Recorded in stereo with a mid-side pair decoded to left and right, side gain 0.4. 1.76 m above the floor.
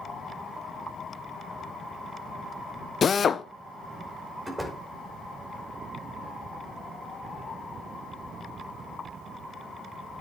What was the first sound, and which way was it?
A drill, 50° left.